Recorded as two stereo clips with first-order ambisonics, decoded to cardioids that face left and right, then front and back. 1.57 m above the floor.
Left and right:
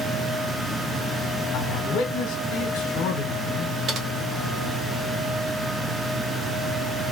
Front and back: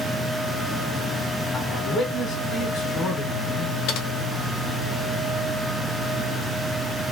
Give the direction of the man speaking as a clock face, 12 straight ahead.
10 o'clock.